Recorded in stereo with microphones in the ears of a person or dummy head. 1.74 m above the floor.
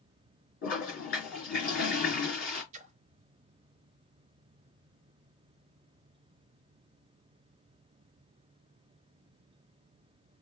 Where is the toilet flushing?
55° left (ahead or behind), 4 m.